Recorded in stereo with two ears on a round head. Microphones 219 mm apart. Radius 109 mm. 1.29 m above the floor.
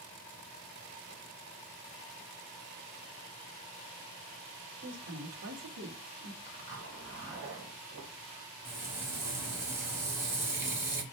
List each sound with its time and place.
4.8 s a woman speaking: 45° right (ahead or behind), 1.4 m; by 6.4 s 40° right (ahead or behind), 0.7 m
6.5 s a zipper: 55° right (ahead or behind), 1.1 m
8.7 s frying: 10° right (ahead or behind), 0.7 m